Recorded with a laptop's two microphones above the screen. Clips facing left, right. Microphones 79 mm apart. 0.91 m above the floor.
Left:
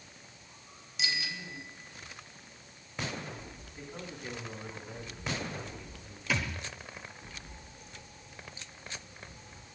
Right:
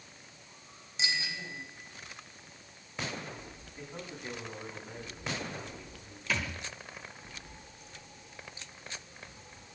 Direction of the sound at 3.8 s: 20° right (ahead or behind).